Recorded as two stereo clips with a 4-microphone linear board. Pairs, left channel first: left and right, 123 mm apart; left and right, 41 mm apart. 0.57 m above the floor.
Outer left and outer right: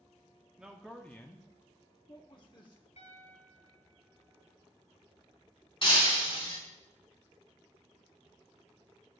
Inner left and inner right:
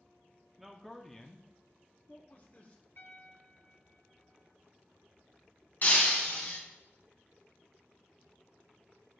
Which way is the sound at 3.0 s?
65° left (ahead or behind).